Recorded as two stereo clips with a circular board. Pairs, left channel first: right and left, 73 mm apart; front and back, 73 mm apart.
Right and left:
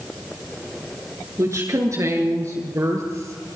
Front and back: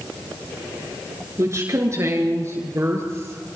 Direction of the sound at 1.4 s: 135° left.